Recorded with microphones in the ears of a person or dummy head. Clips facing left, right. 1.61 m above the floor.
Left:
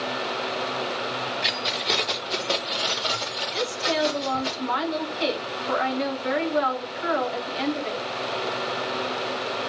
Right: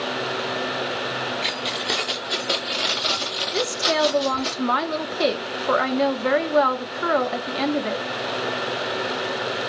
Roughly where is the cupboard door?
I don't hear a cupboard door.